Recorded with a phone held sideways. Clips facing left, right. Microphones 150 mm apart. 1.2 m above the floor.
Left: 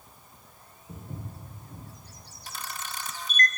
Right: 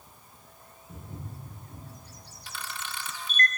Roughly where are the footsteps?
Left.